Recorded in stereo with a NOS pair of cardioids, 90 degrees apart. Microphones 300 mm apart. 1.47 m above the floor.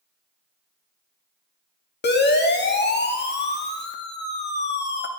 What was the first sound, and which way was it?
A siren, 35° left.